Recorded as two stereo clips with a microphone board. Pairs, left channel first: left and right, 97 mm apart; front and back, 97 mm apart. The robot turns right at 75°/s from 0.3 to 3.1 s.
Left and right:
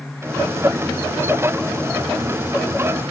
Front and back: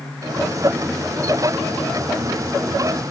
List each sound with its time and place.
Only background noise.